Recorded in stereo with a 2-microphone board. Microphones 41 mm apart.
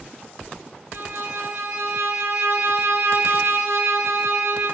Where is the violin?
70° right (ahead or behind), 0.9 m.